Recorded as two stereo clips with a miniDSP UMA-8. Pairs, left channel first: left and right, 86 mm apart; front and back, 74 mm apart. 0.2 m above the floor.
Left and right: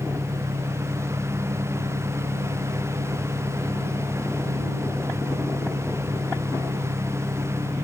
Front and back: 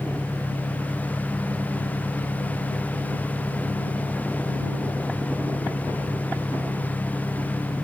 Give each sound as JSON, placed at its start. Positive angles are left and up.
{"t": 0.0, "sound": "an engine running", "azimuth_deg": -65}